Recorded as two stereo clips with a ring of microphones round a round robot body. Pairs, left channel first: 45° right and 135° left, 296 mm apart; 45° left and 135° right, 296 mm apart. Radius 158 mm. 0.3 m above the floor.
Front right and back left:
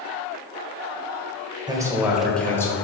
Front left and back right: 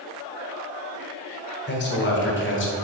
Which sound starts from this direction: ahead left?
A man speaking, at 1.7 s.